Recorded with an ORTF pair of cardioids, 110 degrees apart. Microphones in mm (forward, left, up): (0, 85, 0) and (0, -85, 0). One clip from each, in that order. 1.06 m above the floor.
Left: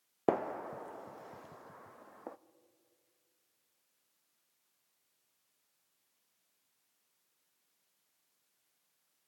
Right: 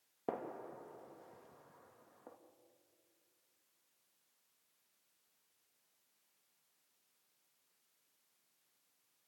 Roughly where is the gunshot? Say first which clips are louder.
Left 10 dB; ahead left.